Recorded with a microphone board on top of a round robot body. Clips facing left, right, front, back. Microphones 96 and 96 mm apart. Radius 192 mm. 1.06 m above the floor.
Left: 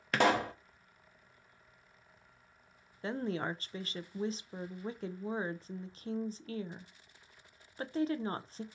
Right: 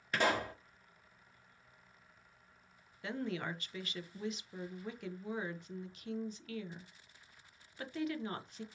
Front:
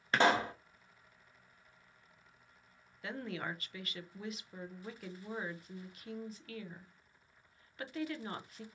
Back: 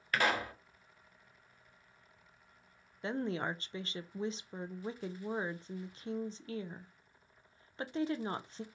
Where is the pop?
65° left, 0.5 m.